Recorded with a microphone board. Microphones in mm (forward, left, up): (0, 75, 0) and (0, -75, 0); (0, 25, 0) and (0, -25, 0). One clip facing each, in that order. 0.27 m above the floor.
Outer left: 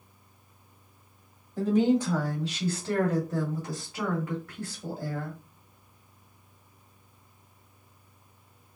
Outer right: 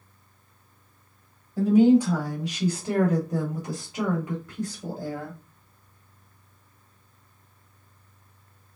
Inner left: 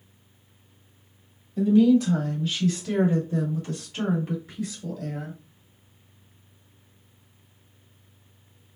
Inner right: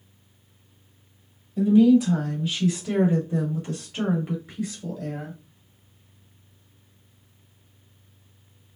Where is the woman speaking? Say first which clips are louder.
Outer right 6 dB, inner right 2 dB; 10° right (ahead or behind), 1.8 m; by 5.4 s 20° right (ahead or behind), 1.7 m.